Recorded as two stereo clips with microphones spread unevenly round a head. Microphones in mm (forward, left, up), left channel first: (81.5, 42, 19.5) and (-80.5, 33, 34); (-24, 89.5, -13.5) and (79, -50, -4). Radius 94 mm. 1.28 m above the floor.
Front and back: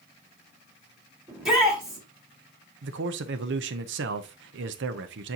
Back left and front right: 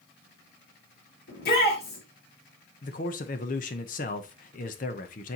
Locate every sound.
1.3 s a shout: 95° left, 4.5 m
2.8 s a man speaking: straight behind, 0.7 m